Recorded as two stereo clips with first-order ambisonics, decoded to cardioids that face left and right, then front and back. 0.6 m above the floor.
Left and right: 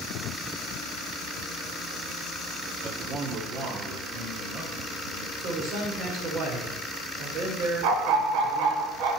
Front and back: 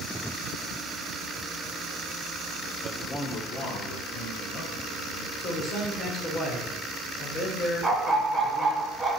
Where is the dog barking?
90° right, 1.3 m.